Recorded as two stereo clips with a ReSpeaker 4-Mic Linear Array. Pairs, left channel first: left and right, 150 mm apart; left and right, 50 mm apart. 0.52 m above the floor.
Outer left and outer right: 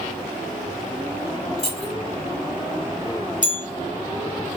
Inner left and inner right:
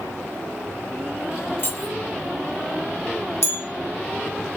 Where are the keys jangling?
40° left (ahead or behind), 2.5 m.